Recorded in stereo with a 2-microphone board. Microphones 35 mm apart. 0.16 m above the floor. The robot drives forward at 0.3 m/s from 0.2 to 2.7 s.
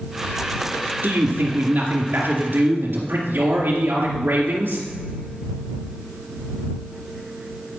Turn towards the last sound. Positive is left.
turn(degrees=-60)  # may be behind; listen again after turning